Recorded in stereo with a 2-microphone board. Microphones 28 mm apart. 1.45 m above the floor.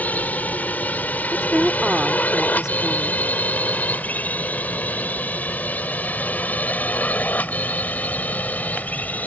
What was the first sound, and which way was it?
A drone, 85° left.